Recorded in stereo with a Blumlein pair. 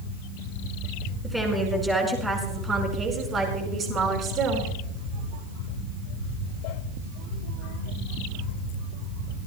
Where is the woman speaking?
Straight ahead, 5.5 m; by 4.7 s 30° right, 5.5 m.